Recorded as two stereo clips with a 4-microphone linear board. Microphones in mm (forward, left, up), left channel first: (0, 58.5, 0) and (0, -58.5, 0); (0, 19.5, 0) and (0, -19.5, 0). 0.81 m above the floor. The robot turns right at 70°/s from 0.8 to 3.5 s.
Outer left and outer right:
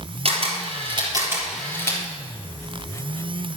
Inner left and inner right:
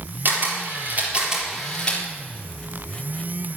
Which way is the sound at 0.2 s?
55° right (ahead or behind).